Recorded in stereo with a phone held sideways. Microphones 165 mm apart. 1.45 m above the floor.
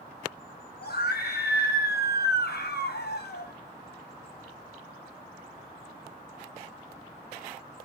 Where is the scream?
75° left (ahead or behind), 1.4 m.